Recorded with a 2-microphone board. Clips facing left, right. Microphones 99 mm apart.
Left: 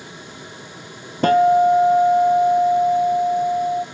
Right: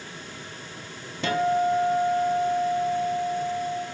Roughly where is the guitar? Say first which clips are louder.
Left 10 dB; left.